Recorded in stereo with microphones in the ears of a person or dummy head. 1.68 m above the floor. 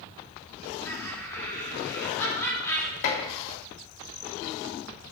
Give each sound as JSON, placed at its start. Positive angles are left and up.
{"t": 0.8, "sound": "laughter", "side_deg": 15, "distance_m": 4.0}
{"t": 3.0, "sound": "dishes clattering", "side_deg": 65, "distance_m": 2.0}